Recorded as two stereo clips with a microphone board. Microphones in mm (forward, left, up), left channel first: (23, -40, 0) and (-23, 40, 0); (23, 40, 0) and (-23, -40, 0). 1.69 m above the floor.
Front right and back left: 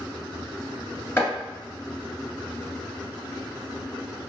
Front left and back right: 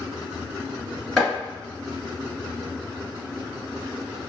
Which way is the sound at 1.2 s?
20° right.